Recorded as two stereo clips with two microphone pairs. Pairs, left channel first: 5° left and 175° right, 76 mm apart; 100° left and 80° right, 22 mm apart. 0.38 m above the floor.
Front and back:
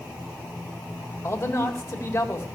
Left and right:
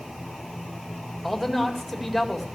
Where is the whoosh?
I don't hear a whoosh.